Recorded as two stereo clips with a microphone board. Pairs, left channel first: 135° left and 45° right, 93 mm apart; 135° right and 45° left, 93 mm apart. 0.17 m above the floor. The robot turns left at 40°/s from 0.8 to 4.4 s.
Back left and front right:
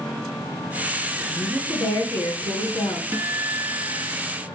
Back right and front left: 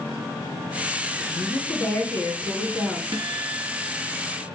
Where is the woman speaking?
165° right, 1.9 m; by 3.0 s 120° left, 1.9 m.